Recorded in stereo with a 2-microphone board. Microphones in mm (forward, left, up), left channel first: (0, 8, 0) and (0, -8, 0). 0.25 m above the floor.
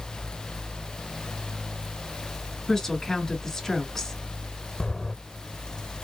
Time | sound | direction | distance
2.7 | a woman speaking | 25° left (ahead or behind) | 1.3 m
4.8 | footsteps | 40° left (ahead or behind) | 0.8 m